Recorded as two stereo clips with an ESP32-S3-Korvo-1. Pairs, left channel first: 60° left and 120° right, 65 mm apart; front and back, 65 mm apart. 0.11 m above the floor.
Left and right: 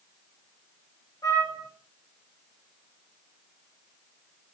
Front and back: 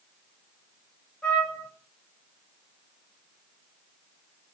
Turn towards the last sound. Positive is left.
turn(degrees=75)